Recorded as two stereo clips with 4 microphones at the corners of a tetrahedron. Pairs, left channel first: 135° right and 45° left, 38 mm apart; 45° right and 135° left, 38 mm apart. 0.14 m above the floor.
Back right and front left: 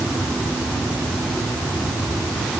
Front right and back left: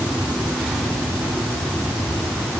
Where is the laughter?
I don't hear laughter.